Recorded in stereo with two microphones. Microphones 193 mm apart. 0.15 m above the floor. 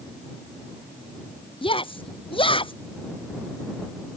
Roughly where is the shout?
Left.